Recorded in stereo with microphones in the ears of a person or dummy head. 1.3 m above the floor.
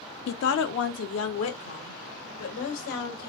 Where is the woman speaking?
65° left (ahead or behind), 0.5 m; by 3.3 s 90° left, 2.5 m.